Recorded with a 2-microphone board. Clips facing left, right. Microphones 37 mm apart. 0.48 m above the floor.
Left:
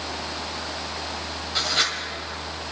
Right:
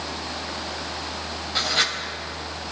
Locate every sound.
1.6 s writing: centre (ahead or behind), 2.0 m